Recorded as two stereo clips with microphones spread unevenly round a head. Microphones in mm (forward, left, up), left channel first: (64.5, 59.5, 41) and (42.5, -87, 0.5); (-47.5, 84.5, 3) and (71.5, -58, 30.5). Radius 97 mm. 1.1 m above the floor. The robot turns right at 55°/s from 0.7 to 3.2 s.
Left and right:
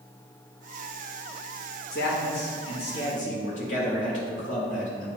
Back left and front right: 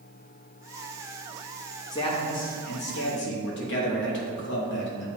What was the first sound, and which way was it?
A man speaking, 65° left.